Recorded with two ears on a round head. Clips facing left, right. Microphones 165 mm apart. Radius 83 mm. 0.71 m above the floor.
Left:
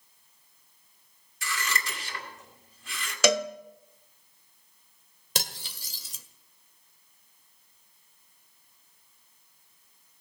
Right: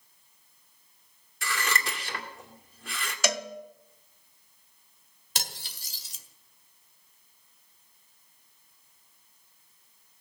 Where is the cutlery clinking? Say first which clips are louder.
Left 4 dB; 75° left (ahead or behind), 1.8 m.